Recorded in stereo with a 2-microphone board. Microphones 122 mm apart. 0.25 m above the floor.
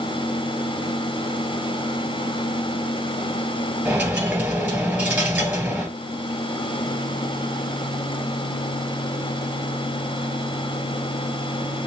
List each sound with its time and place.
3.9 s a dropped coin: 15° right (ahead or behind), 1.9 m